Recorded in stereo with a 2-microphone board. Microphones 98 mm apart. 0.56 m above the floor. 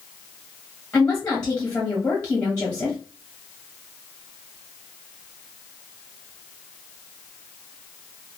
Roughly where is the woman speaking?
Centre.